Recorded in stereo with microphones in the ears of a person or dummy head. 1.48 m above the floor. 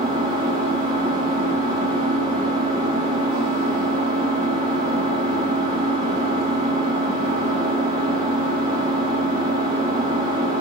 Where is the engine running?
40° right (ahead or behind), 4.5 m.